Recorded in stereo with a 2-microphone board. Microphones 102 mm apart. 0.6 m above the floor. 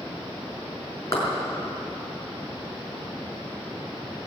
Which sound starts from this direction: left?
A clap, at 1.1 s.